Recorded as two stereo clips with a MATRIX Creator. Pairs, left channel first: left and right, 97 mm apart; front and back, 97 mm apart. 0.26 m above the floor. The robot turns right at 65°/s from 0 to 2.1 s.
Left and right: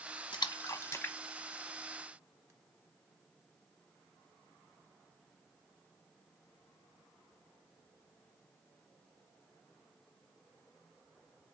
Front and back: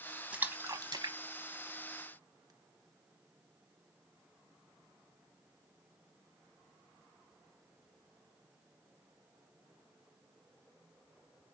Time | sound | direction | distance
0.3 | a splash | 105° left | 0.8 m